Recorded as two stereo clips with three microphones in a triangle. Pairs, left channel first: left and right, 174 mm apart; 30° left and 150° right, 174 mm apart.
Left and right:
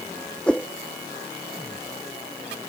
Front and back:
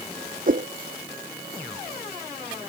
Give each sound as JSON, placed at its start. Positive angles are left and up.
{"t": 0.5, "sound": "a whoosh", "azimuth_deg": 175}